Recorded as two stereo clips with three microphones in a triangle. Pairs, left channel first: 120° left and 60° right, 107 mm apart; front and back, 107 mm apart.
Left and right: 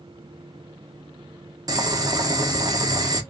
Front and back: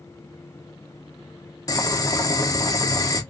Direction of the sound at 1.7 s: 35° right.